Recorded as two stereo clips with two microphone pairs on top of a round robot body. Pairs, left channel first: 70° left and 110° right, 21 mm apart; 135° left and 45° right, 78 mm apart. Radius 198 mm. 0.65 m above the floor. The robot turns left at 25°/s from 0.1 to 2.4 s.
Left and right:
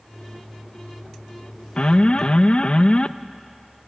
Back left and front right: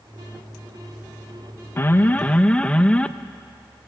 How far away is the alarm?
About 0.5 m.